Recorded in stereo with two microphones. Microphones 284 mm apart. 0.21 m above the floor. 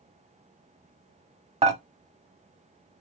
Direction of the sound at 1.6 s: 20° right (ahead or behind).